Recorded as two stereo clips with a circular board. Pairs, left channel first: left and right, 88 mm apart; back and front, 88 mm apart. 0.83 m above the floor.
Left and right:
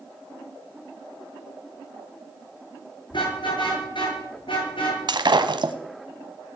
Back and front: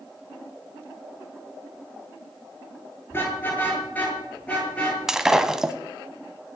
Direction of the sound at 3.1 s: 115° left.